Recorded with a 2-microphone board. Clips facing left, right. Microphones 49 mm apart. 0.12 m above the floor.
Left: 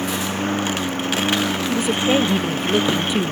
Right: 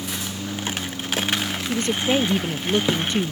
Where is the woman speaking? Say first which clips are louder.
Left 2 dB; 10° left (ahead or behind).